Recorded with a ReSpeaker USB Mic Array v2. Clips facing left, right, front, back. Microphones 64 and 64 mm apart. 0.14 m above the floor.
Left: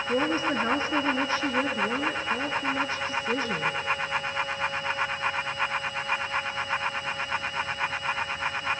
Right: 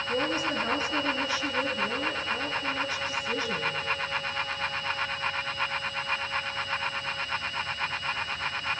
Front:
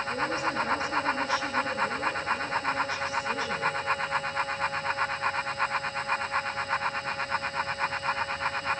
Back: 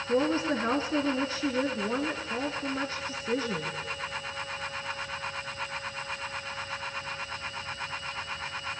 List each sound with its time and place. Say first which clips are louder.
0.1 s a woman speaking: left 3 dB, back 5 dB; 135° left, 1.8 m